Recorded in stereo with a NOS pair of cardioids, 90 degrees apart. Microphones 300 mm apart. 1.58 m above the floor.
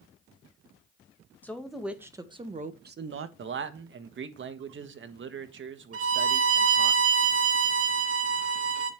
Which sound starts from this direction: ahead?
A woman speaking, at 1.4 s.